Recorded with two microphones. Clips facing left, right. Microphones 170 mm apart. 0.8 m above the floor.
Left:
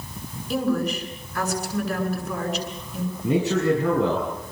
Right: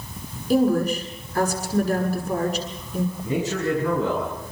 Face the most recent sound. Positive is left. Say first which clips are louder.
# left 7 dB
turn(degrees=65)  # may be behind; listen again after turning